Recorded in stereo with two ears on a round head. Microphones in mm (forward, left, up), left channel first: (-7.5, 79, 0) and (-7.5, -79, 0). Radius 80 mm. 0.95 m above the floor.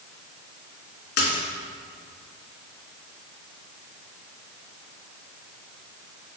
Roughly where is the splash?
Left.